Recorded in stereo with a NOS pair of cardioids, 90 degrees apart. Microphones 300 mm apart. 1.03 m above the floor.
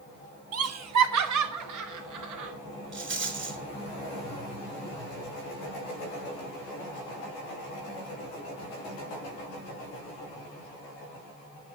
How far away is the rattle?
About 4 m.